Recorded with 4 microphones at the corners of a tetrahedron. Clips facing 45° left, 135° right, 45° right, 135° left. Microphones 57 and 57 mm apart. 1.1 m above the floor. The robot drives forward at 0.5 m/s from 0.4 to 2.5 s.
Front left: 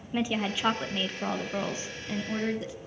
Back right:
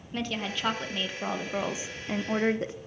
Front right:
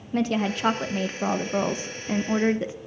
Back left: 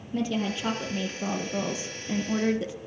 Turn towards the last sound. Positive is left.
turn(degrees=-95)